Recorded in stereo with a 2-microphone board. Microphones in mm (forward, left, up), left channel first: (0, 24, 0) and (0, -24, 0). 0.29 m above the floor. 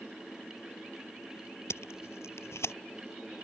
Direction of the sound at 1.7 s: 70° left (ahead or behind).